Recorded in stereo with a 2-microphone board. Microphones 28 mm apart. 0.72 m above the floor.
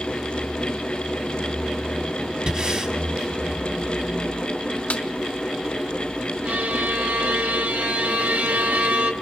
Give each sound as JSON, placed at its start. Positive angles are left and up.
{"t": 2.5, "sound": "breathing", "side_deg": -35, "distance_m": 1.1}
{"t": 4.9, "sound": "a snare drum", "side_deg": 65, "distance_m": 0.8}
{"t": 6.5, "sound": "a violin", "side_deg": -75, "distance_m": 0.7}